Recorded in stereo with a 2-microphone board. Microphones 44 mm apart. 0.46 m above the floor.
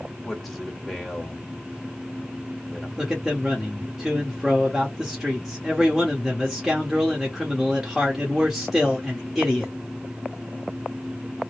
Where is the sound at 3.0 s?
5° right (ahead or behind), 0.9 m.